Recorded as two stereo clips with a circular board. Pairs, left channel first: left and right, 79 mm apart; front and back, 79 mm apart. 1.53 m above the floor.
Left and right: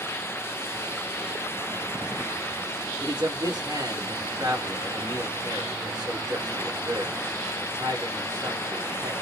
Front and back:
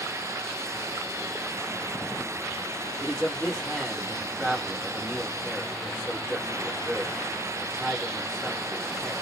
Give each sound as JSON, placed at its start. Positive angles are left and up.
{"t": 3.0, "sound": "a man speaking", "azimuth_deg": -100, "distance_m": 1.9}